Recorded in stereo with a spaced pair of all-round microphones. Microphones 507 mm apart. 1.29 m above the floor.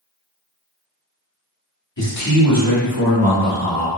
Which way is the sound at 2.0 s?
40° left (ahead or behind).